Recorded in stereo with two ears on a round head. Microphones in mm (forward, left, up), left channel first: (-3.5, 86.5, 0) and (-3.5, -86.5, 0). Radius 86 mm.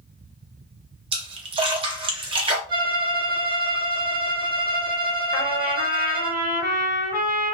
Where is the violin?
20° right (ahead or behind), 0.7 m.